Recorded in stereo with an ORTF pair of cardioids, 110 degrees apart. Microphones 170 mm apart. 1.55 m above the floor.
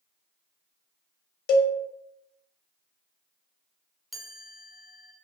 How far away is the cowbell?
About 0.5 m.